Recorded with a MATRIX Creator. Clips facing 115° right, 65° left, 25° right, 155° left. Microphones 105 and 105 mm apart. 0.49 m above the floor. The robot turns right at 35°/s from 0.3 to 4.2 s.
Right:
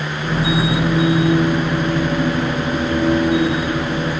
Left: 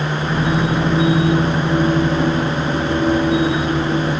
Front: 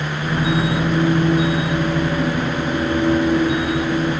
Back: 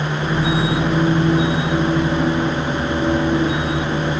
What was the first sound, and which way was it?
Only background noise.